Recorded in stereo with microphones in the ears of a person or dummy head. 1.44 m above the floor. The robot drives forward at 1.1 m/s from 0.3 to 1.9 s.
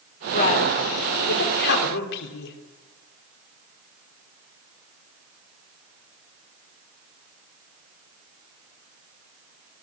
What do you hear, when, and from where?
0.3 s a man speaking: 40° left (ahead or behind), 5 m; by 2.6 s 60° left (ahead or behind), 3.5 m